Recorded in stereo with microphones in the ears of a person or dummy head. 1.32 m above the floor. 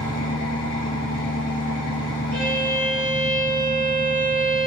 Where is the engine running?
55° left (ahead or behind), 2.0 m.